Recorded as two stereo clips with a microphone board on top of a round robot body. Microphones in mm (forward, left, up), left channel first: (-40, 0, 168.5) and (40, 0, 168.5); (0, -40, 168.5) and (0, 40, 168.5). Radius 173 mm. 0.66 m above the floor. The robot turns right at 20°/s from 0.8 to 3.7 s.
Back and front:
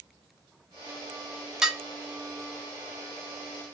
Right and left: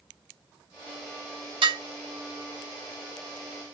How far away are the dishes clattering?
About 1.3 m.